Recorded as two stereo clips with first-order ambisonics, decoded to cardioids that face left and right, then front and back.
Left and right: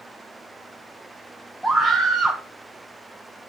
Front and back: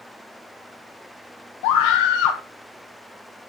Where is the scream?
Straight ahead, 0.7 m.